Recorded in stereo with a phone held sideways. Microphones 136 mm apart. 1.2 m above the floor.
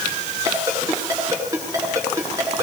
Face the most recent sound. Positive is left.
turn(degrees=-25)  # may be behind; listen again after turning